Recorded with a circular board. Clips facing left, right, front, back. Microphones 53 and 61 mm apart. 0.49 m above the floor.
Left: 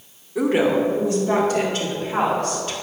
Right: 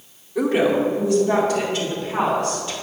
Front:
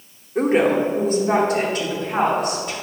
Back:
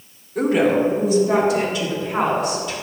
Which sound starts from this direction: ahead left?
A woman speaking, at 0.3 s.